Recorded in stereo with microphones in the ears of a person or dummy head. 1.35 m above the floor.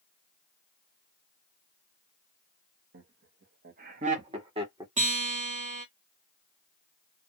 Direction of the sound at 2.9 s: 65° right (ahead or behind).